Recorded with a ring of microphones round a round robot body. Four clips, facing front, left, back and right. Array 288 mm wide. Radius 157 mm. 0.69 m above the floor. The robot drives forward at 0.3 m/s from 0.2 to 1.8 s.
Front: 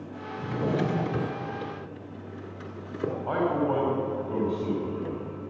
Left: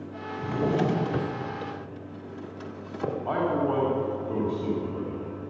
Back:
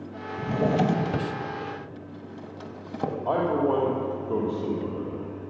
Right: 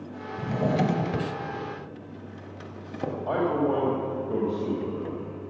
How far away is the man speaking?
About 2.5 m.